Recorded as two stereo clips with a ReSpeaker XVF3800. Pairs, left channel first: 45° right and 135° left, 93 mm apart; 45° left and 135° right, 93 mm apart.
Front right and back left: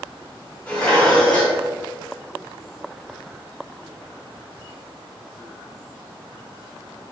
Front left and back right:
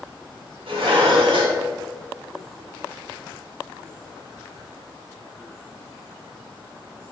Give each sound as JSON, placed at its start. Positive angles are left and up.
{"t": 0.7, "sound": "dishes clattering", "azimuth_deg": -125, "distance_m": 1.1}